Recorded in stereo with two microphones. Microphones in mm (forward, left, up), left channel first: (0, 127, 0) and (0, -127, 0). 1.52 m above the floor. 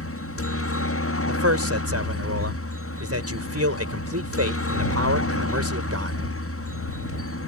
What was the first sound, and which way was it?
A helicopter, 60° left (ahead or behind).